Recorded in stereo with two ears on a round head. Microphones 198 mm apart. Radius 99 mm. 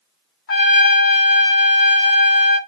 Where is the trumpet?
45° left (ahead or behind), 1.2 m.